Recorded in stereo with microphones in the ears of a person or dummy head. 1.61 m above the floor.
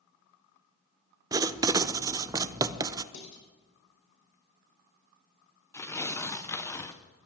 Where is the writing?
20° right (ahead or behind), 0.5 m.